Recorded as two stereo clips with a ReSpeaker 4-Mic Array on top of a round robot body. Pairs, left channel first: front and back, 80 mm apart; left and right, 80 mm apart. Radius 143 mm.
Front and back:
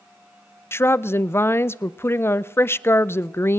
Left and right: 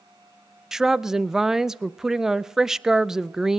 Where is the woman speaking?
10° right, 0.5 m.